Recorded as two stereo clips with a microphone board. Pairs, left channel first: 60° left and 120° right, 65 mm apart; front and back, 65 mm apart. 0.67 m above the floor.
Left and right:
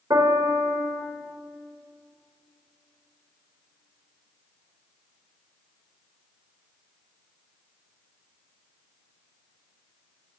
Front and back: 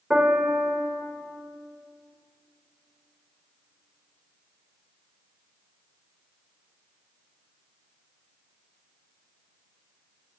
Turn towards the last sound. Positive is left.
turn(degrees=-100)